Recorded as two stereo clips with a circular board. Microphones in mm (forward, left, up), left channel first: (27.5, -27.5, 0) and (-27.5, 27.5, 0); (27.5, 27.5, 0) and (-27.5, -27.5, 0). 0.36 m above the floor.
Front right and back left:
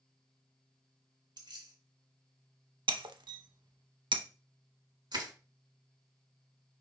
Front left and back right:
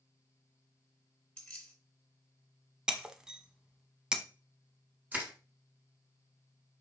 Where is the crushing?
160° left, 1.4 m.